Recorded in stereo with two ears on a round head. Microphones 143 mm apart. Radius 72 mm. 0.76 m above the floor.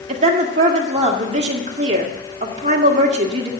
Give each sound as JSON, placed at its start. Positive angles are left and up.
{"t": 0.1, "sound": "a woman speaking", "side_deg": -45, "distance_m": 1.7}